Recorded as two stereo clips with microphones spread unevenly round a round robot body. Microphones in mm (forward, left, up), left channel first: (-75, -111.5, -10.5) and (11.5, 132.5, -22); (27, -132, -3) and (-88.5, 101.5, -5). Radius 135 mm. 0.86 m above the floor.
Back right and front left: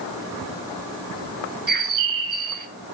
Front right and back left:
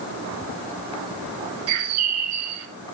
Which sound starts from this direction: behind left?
A bird, at 1.7 s.